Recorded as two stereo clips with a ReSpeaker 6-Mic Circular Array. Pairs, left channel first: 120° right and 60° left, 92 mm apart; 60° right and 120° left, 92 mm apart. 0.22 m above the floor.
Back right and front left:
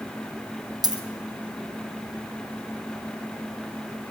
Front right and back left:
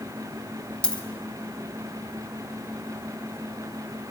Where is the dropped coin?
20° left, 1.3 m.